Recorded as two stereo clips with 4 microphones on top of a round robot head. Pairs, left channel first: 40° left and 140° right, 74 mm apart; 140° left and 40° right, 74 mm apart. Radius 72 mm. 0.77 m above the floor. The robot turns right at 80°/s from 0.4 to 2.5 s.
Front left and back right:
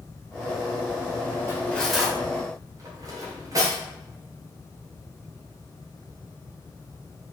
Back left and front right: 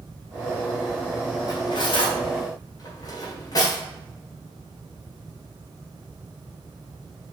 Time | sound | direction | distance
1.5 | cutlery clinking | 95° left | 2.0 m